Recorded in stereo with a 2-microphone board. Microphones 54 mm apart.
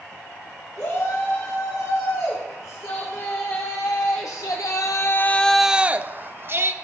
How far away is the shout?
About 5 m.